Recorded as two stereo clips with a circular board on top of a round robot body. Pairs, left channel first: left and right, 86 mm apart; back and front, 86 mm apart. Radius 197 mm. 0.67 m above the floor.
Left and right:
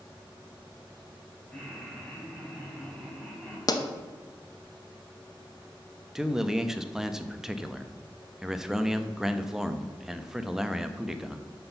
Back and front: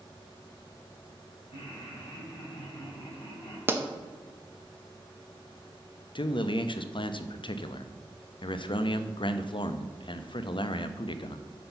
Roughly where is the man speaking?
Behind.